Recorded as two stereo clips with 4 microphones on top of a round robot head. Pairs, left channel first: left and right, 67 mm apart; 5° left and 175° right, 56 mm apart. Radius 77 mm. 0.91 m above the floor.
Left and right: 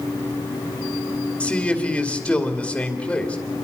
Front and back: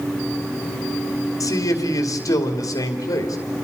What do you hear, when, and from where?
1.4 s a man speaking: 15° left, 2.5 m